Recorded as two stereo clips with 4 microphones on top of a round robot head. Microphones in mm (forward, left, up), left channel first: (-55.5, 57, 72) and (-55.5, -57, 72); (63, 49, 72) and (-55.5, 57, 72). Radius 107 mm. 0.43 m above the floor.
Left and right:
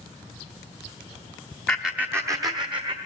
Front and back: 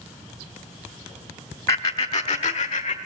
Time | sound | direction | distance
1.7 | laughter | 15° left | 0.8 m